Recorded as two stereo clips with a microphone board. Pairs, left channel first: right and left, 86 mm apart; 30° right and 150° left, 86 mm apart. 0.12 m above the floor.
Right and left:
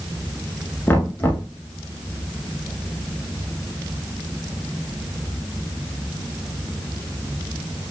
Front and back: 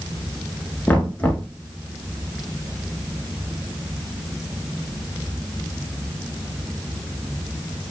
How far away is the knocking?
About 1.3 m.